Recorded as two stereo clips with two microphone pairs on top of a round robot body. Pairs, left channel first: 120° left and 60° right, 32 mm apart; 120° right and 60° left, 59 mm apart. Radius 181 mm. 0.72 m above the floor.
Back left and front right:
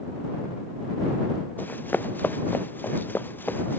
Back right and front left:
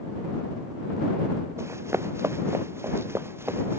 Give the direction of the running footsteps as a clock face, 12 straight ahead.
9 o'clock.